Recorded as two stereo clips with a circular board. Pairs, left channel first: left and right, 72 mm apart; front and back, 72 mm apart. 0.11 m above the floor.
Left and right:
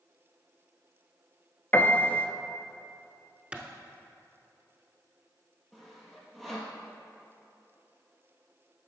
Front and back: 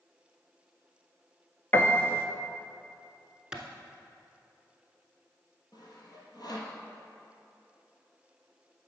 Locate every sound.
1.7 s a piano: 40° left, 0.6 m
3.5 s a clap: 125° right, 0.9 m
5.7 s sawing: straight ahead, 1.6 m